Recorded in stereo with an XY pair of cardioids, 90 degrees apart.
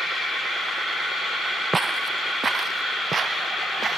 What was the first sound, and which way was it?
Footsteps, 35° right.